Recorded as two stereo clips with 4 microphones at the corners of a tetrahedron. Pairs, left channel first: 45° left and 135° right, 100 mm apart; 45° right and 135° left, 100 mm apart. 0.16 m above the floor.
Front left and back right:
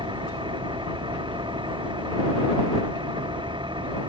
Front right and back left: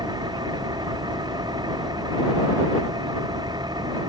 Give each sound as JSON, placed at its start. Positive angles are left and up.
{"t": 0.0, "sound": "an engine running", "azimuth_deg": -175}